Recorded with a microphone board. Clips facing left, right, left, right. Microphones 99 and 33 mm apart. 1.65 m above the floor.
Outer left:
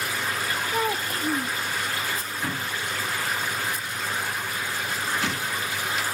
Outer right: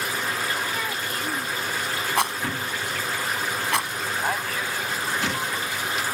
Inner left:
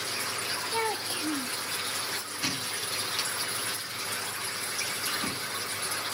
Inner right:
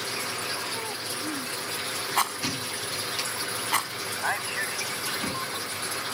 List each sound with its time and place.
0.7 s a child speaking: 40° left (ahead or behind)
2.2 s a rattle: 75° right (ahead or behind)
4.2 s a man speaking: 80° right